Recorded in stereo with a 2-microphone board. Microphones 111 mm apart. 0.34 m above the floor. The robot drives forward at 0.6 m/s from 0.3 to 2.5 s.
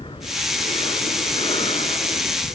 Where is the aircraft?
50° left (ahead or behind); by 2.5 s 55° left (ahead or behind).